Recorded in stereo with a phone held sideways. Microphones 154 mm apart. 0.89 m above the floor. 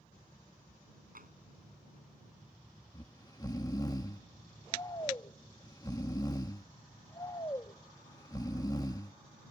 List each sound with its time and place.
1.1 s tapping: 70° right (ahead or behind)
2.9 s snoring: 25° left (ahead or behind)